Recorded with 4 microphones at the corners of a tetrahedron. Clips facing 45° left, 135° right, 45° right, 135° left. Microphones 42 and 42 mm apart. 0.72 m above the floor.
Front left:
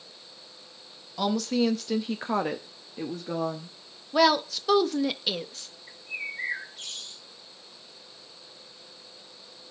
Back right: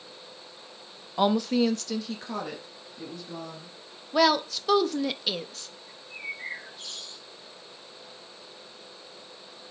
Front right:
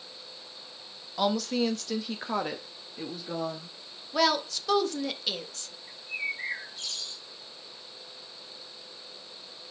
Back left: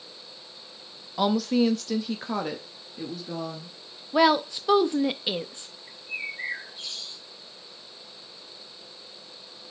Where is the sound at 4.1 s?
130° left, 0.5 m.